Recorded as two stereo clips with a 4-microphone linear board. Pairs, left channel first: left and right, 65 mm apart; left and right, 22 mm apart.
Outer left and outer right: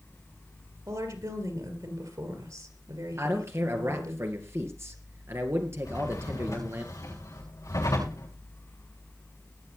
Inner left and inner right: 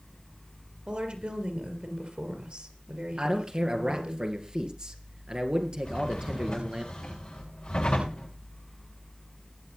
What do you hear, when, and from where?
0.9 s a woman speaking: 65° right (ahead or behind), 3.5 m
3.2 s a man speaking: 40° right (ahead or behind), 2.5 m
5.8 s a drawer: 55° left (ahead or behind), 8 m